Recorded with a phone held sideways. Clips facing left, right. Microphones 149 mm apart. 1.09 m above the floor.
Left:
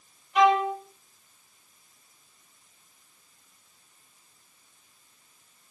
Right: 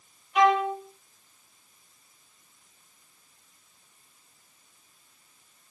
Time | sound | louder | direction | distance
0.3 | a violin | left 1 dB | 5° right (ahead or behind) | 3.5 m